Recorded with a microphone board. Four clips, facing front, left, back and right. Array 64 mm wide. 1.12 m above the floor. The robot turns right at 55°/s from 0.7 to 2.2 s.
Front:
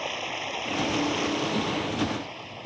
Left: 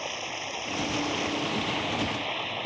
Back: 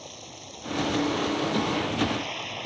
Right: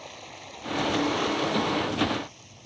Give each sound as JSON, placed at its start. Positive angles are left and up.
{"t": 0.0, "sound": "running water", "azimuth_deg": 25}